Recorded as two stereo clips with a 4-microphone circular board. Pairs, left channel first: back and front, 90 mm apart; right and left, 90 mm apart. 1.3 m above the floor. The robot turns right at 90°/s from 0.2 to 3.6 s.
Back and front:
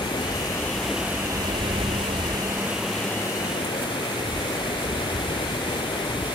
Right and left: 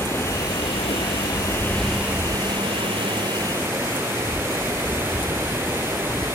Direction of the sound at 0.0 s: 150° right.